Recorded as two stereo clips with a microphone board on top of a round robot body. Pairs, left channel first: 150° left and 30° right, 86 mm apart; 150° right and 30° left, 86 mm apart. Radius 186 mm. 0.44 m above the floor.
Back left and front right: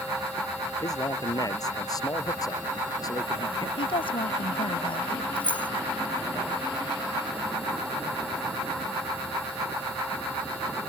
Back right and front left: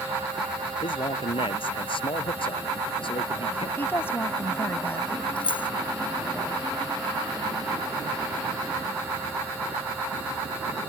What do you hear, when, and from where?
0.8 s a man speaking: 165° right
3.8 s a woman speaking: 145° left
5.4 s keys jangling: 135° right